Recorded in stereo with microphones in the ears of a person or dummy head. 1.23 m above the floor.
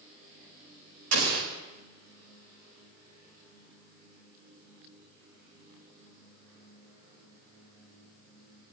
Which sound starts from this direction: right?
An explosion, at 1.1 s.